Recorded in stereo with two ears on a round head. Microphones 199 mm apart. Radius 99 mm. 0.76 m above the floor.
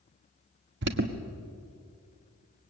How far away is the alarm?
About 1.4 m.